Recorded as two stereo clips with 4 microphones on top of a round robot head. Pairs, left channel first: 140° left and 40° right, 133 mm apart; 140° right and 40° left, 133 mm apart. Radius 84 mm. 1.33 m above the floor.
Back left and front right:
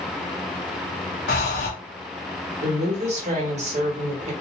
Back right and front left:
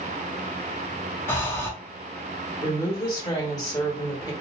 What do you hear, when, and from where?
1.3 s breathing: 150° left, 0.7 m
2.6 s a woman speaking: 75° right, 1.1 m